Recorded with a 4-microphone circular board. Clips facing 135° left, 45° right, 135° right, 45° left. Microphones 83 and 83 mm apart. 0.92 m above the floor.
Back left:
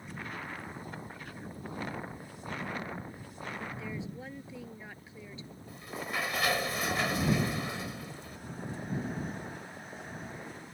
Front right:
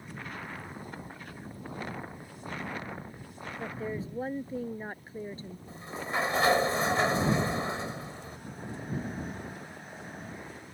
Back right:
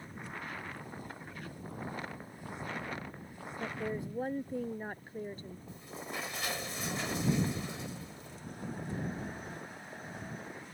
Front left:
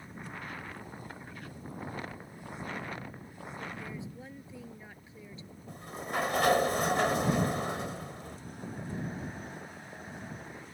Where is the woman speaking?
95° right.